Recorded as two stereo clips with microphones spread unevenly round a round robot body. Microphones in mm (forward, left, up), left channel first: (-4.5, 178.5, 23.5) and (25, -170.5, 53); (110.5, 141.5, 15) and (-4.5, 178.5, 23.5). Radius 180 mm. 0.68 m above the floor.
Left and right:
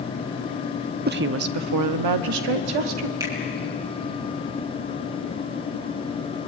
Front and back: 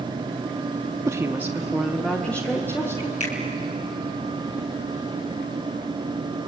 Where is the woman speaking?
140° right, 0.9 m; by 3.1 s 90° right, 1.9 m.